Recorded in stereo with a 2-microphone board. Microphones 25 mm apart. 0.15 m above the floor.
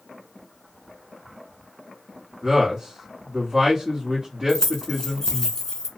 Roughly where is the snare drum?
No snare drum in this recording.